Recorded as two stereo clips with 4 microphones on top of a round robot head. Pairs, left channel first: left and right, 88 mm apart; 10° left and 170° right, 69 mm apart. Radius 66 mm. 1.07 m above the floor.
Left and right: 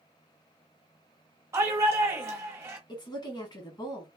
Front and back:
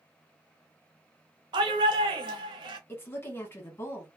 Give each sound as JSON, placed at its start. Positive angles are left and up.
{"t": 1.5, "sound": "a shout", "azimuth_deg": -155, "distance_m": 0.9}
{"t": 2.9, "sound": "a woman speaking", "azimuth_deg": 60, "distance_m": 1.1}